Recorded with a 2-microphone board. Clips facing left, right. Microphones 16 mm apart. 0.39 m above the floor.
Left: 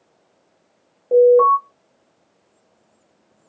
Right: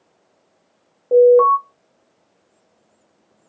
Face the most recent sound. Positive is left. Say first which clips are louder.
# right 1 dB
turn(degrees=-15)  # may be behind; listen again after turning